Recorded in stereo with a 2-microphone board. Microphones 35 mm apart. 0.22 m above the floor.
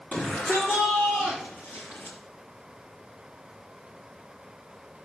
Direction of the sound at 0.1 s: 60° left (ahead or behind).